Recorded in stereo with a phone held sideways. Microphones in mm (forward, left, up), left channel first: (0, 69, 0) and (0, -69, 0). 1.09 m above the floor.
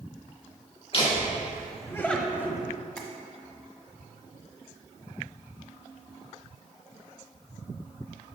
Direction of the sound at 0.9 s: 45° left (ahead or behind).